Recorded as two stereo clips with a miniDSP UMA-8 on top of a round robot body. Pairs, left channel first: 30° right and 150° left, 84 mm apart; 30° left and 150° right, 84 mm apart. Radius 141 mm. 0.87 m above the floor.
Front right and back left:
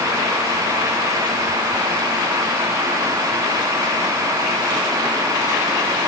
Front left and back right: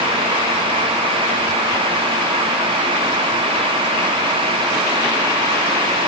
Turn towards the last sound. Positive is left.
No sound to turn to.